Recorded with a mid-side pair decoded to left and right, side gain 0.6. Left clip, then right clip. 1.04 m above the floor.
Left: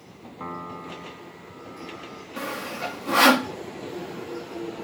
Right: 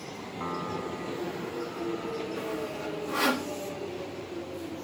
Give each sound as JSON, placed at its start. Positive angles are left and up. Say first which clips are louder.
{"t": 0.4, "sound": "a piano", "louder": "right 1 dB", "azimuth_deg": 5}
{"t": 2.4, "sound": "sawing", "louder": "left 3 dB", "azimuth_deg": 50}